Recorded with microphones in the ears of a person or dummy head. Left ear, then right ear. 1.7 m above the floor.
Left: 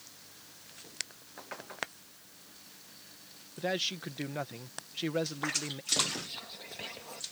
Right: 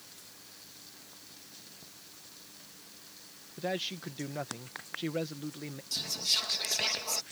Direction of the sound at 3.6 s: 15° left (ahead or behind).